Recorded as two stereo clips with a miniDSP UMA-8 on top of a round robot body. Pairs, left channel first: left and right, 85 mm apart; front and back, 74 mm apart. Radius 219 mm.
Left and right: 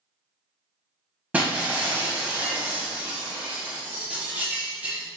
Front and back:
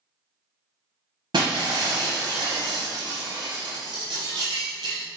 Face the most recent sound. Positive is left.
turn(degrees=-165)